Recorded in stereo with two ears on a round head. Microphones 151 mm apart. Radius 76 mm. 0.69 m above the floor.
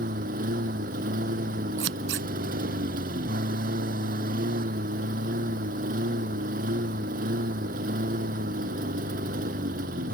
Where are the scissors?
85° right.